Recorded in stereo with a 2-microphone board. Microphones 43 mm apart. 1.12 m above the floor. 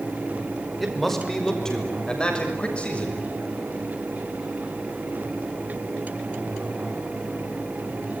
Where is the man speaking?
Centre (ahead or behind), 5 m; by 3.2 s 30° left (ahead or behind), 7.5 m.